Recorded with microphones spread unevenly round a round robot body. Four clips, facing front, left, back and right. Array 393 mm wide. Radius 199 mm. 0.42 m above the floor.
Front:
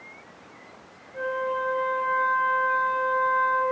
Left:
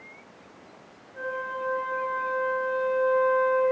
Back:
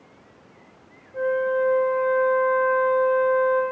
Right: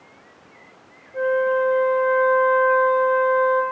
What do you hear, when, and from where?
1.1 s a flute: 75° right, 5.5 m